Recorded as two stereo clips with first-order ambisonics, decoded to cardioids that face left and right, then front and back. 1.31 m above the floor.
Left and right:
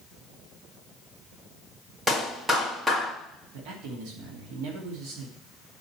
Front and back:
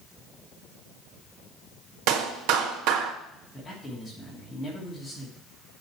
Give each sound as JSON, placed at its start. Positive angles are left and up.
{"t": 2.1, "sound": "a clap", "azimuth_deg": -175, "distance_m": 1.7}
{"t": 3.5, "sound": "a man speaking", "azimuth_deg": -80, "distance_m": 2.5}